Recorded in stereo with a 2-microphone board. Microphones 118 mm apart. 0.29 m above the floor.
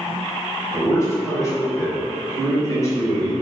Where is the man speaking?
25° left (ahead or behind), 1.2 m.